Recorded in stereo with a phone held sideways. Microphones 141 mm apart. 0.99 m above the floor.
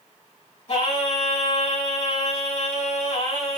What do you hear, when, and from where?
0.7 s singing: 50° left (ahead or behind), 3 m